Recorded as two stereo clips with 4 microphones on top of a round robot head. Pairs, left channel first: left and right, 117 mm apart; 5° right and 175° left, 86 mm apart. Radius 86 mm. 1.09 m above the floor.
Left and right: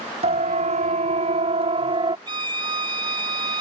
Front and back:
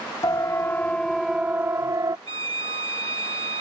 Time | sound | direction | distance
0.2 | a siren | 65° right | ?
2.3 | a violin | 135° right | ?